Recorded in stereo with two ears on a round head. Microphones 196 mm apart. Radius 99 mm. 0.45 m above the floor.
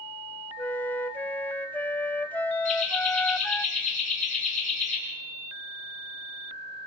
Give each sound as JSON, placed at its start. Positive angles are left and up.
{"t": 0.6, "sound": "a flute", "side_deg": 10, "distance_m": 0.6}
{"t": 2.6, "sound": "laughter", "side_deg": 35, "distance_m": 9.5}